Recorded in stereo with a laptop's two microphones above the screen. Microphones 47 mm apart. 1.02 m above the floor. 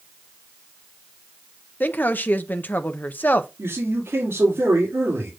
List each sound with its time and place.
1.8 s a woman speaking: 40° left (ahead or behind), 0.6 m
3.6 s a man speaking: 65° right (ahead or behind), 2.5 m